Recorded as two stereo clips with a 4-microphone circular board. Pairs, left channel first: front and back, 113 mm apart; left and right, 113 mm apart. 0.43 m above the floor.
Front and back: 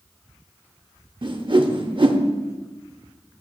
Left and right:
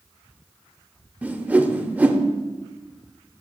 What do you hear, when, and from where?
1.2 s a whoosh: 160° right, 0.7 m